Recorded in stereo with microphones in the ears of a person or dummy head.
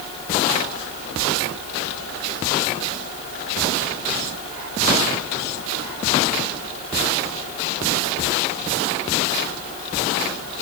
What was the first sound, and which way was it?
Only background noise.